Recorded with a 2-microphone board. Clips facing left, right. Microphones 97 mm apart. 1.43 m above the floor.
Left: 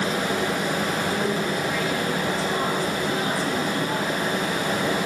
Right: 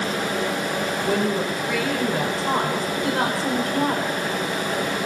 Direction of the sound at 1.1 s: 85° right.